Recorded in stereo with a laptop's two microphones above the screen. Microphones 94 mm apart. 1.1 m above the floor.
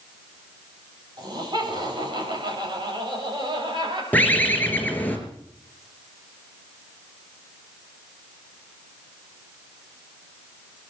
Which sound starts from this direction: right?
Laughter, at 1.2 s.